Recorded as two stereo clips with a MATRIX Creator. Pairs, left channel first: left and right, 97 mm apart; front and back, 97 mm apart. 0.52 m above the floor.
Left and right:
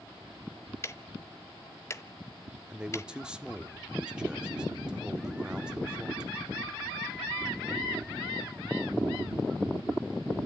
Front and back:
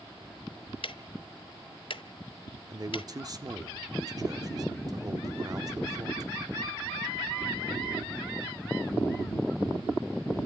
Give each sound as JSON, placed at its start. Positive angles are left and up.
{"t": 0.8, "sound": "ticking", "azimuth_deg": 30, "distance_m": 0.7}
{"t": 2.7, "sound": "a man speaking", "azimuth_deg": -165, "distance_m": 0.9}